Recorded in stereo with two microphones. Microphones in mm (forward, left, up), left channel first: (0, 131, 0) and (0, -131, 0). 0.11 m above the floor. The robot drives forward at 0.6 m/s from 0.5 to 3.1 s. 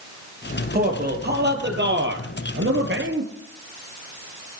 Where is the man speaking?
40° right (ahead or behind), 3 m; by 3.3 s 55° right (ahead or behind), 2 m.